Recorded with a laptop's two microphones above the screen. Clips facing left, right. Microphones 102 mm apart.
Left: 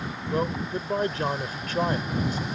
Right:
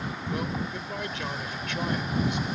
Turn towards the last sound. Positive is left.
turn(degrees=40)  # may be behind; listen again after turning